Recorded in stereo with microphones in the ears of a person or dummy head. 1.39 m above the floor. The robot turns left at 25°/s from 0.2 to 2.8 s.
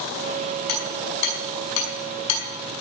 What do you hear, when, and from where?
0.7 s hammering: 50° left (ahead or behind), 5 m; by 2.4 s 80° left, 5 m